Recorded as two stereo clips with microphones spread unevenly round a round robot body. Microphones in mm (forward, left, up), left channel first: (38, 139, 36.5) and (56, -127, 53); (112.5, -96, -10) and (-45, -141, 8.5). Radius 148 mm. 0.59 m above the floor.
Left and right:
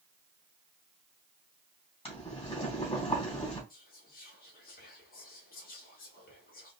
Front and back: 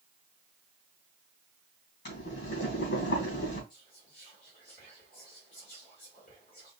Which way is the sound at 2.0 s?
25° left.